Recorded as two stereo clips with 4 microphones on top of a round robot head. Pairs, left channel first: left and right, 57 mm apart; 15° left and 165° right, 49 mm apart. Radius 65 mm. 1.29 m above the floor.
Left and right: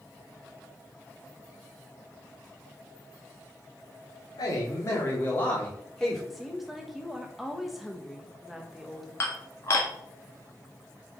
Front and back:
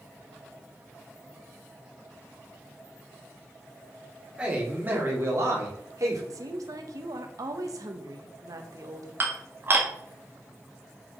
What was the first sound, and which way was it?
A man speaking, 125° left.